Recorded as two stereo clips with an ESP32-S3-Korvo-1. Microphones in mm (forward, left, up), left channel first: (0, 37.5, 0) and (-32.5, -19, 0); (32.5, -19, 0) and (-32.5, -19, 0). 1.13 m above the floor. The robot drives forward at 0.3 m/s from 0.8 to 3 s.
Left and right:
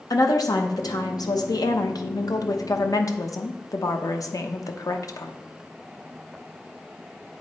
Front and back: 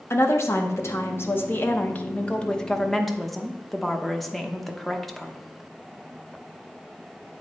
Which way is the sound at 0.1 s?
45° left.